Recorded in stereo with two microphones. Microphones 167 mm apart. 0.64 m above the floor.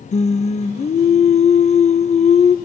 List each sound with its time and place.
0.1 s singing: 45° left (ahead or behind), 0.6 m